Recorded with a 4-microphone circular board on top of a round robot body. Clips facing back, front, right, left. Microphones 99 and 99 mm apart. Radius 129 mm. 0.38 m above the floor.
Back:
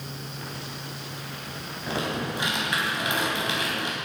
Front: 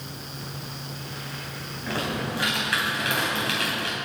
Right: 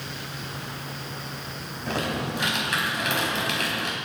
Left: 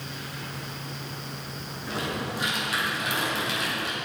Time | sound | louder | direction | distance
1.9 | typing on a keyboard | even, right 3 dB | 110° right | 4.5 m